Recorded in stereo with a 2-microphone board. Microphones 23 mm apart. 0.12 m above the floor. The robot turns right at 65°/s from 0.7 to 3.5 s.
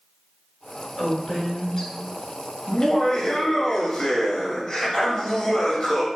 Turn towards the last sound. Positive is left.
turn(degrees=150)